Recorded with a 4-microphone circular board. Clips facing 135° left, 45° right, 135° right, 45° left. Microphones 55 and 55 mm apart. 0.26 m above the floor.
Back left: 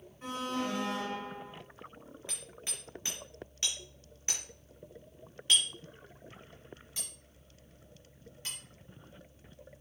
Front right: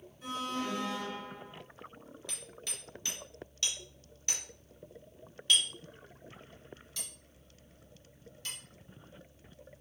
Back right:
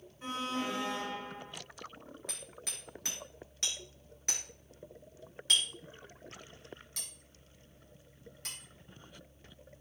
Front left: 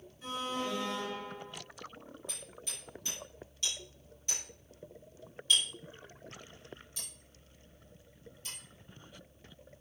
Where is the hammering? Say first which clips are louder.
Even, even; 160° right, 4 m.